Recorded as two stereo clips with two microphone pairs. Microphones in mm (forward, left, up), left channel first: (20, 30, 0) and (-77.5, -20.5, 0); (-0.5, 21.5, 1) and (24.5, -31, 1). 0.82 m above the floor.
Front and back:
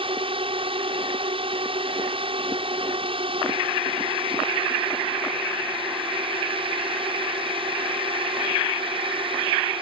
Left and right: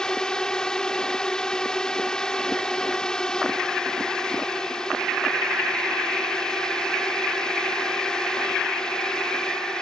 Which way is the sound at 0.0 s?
165° right.